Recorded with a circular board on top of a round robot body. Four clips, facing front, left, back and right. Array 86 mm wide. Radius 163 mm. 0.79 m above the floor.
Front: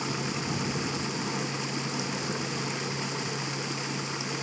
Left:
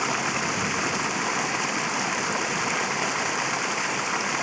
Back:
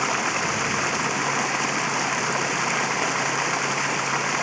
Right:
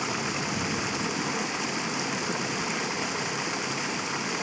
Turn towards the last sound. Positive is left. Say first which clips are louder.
# left 4 dB, back 8 dB
turn(degrees=155)